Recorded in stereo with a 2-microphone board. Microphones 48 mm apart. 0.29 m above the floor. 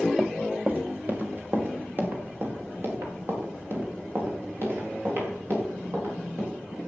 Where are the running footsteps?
20° right (ahead or behind), 1.2 m; by 6.5 s 55° right (ahead or behind), 7 m.